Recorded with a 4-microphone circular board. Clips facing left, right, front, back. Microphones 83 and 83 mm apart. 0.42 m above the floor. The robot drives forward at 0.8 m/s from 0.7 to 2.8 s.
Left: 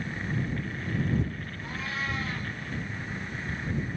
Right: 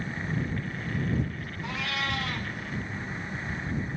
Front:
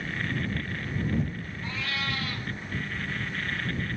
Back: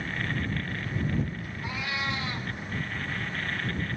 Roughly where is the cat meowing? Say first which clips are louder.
Right 2 dB, back 1 dB; right.